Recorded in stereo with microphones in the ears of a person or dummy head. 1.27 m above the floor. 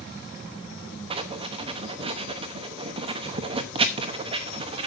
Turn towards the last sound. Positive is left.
turn(degrees=-25)  # may be behind; listen again after turning